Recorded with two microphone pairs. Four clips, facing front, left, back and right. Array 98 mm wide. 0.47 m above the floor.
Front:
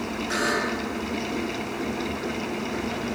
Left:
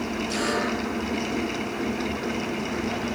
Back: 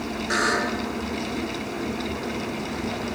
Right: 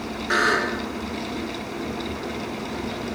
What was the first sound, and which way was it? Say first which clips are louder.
A buzzer: right 6 dB, back 3 dB; 110° right.